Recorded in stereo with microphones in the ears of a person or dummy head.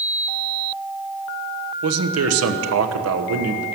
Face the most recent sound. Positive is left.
turn(degrees=-80)